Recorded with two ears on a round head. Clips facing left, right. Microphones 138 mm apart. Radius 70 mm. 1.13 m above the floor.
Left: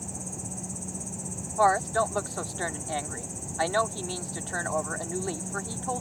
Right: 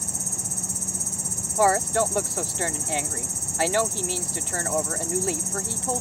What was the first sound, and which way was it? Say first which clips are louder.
An insect: right 1 dB; 80° right.